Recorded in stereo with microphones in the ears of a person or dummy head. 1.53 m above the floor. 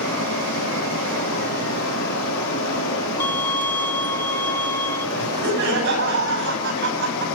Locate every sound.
0.0 s running water: 75° left (ahead or behind), 4.5 m
3.2 s a violin: 10° left (ahead or behind), 1.6 m
5.2 s laughter: 70° right (ahead or behind), 5 m